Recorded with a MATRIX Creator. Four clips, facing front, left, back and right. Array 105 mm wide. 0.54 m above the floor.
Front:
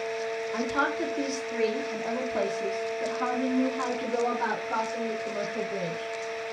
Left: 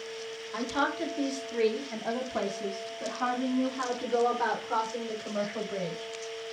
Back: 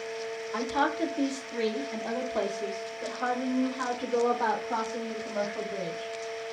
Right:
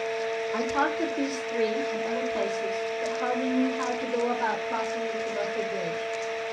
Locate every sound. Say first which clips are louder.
0.5 s a woman speaking: right 2 dB, back 1 dB; 85° right, 1.3 m; by 6.1 s 50° left, 3 m